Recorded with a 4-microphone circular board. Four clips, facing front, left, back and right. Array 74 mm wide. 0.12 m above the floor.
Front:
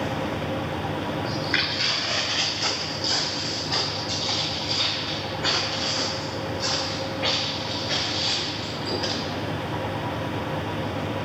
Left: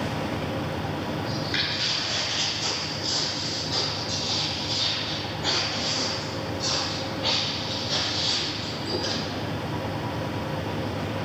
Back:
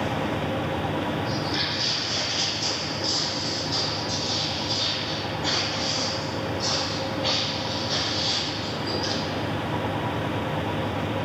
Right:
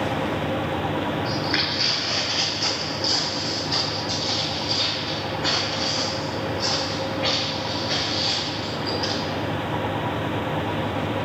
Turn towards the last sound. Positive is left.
turn(degrees=-35)